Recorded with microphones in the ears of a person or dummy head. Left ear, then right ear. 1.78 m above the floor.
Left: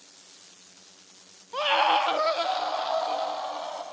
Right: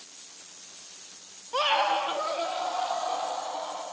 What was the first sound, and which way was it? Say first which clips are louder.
A scream: left 2 dB; 15° right (ahead or behind).